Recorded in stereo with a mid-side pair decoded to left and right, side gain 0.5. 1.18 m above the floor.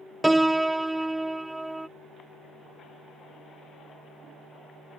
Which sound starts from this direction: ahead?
A piano, at 0.2 s.